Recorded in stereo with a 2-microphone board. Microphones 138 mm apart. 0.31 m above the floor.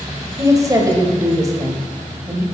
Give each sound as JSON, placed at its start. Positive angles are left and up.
{"t": 0.4, "sound": "a woman speaking", "side_deg": -25, "distance_m": 1.3}